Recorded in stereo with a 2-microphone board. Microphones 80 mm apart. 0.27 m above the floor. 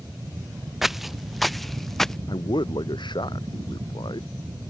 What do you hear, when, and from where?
0.8 s footsteps: 5° right (ahead or behind); by 2.2 s 5° left (ahead or behind)
2.3 s a man speaking: 75° left (ahead or behind)